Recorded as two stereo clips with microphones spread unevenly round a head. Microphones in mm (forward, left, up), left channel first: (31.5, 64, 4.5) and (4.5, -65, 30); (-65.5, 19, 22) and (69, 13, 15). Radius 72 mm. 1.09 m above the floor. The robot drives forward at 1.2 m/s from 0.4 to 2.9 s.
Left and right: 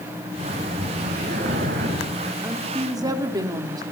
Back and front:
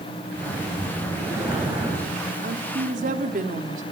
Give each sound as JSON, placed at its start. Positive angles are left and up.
{"t": 0.3, "sound": "breathing", "azimuth_deg": -70, "distance_m": 9.0}
{"t": 2.4, "sound": "a woman speaking", "azimuth_deg": -30, "distance_m": 3.0}